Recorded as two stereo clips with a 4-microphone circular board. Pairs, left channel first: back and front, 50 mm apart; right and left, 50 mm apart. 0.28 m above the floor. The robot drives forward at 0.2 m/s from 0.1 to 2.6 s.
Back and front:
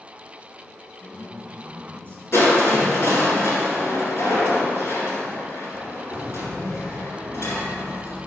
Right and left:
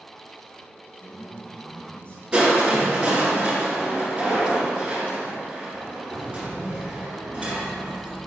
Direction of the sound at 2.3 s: 155° left.